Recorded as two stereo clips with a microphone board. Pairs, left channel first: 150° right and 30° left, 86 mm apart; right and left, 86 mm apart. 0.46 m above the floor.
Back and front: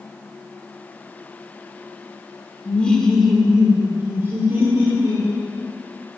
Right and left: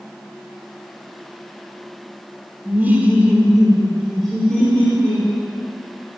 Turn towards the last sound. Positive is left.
turn(degrees=-15)